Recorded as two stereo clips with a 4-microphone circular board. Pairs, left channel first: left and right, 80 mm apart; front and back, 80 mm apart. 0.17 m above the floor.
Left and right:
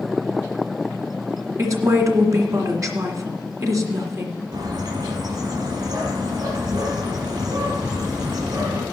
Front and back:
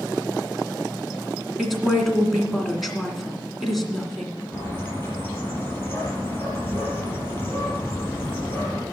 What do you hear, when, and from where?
1.6 s a woman speaking: 90° right, 1.9 m
4.5 s a bird: 70° right, 5 m